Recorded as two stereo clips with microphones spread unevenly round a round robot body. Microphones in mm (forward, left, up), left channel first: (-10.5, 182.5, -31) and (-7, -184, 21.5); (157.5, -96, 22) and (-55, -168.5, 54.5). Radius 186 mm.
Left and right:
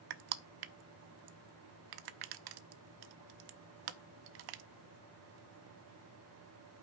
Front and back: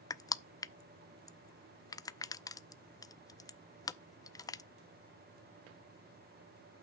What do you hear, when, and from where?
0.1 s crushing: 55° right, 0.6 m